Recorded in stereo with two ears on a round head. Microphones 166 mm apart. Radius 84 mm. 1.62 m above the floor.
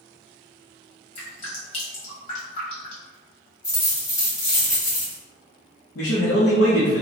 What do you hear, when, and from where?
1.1 s dripping: 30° left (ahead or behind), 1.4 m
3.6 s a dropped coin: 20° left (ahead or behind), 1.5 m
6.0 s a man speaking: 65° left (ahead or behind), 0.9 m